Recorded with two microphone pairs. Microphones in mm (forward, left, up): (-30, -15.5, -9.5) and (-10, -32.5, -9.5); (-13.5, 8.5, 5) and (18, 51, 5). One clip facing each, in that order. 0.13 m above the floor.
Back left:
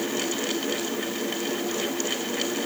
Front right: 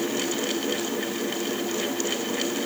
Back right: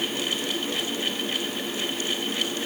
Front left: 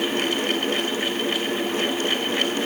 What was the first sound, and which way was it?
Only background noise.